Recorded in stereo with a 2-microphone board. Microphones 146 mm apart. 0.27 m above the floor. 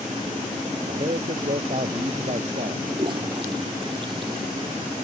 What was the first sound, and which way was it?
A man speaking, 50° right (ahead or behind).